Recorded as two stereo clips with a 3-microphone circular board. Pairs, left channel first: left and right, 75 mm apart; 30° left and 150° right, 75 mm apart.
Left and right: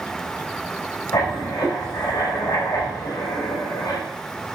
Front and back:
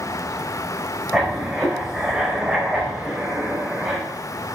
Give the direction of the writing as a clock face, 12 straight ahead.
8 o'clock.